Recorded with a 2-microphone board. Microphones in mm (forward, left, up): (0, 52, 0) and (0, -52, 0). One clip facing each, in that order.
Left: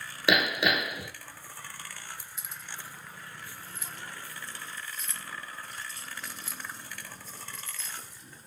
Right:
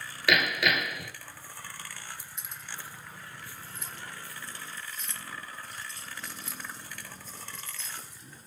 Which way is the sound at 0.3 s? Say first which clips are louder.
Left 1 dB; 25° left (ahead or behind).